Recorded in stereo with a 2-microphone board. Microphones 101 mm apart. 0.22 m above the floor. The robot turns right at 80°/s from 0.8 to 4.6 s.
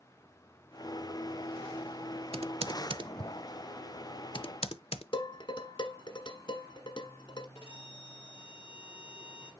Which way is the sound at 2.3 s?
75° right (ahead or behind).